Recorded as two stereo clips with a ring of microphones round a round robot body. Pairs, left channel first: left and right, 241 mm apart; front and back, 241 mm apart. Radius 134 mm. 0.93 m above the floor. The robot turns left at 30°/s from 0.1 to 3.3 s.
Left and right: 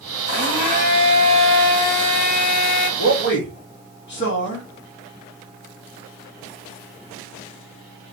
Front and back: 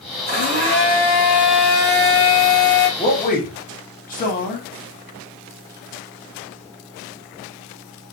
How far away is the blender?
About 1.6 m.